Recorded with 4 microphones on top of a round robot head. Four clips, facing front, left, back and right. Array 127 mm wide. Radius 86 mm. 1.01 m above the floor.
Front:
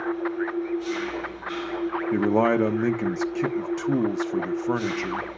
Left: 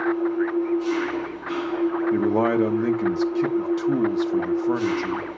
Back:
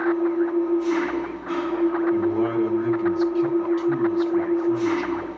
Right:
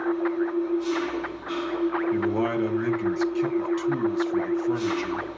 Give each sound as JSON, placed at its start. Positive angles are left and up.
{"t": 0.0, "sound": "an engine running", "azimuth_deg": 155, "distance_m": 9.5}
{"t": 2.1, "sound": "a man speaking", "azimuth_deg": 35, "distance_m": 1.1}